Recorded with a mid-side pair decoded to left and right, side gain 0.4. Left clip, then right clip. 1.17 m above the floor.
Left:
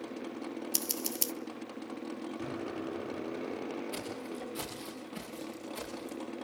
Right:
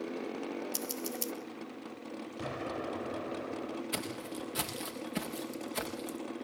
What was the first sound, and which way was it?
Scissors, 50° left.